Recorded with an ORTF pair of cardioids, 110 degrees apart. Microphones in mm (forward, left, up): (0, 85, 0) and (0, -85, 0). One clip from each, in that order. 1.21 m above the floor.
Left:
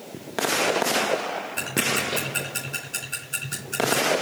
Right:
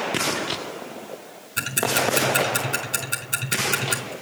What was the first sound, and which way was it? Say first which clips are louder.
Ticking: right 3 dB; 55° right.